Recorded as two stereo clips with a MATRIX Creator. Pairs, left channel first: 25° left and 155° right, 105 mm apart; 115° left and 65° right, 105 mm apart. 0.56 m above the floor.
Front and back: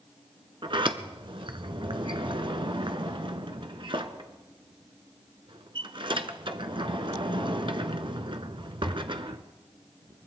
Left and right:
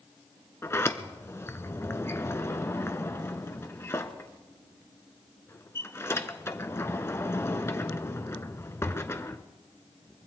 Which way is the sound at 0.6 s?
175° left.